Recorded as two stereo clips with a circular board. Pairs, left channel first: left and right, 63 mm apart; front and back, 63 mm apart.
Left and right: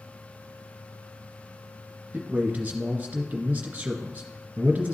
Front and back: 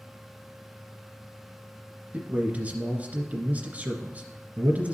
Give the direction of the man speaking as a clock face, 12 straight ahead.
5 o'clock.